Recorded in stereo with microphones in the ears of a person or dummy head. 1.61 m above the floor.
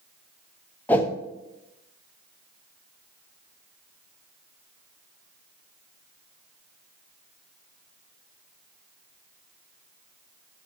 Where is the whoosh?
10° left (ahead or behind), 0.9 m.